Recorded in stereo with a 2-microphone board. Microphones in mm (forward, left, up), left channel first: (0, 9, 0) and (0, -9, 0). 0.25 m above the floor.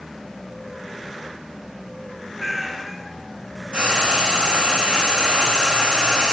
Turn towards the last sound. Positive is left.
turn(degrees=-60)  # may be behind; listen again after turning